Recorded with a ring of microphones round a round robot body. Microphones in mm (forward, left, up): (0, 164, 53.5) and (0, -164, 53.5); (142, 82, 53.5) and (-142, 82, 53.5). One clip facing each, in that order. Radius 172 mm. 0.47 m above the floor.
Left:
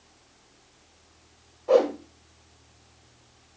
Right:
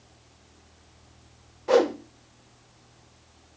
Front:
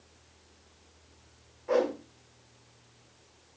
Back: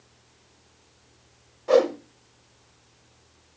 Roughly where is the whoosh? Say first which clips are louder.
Even, back 8 dB; behind right.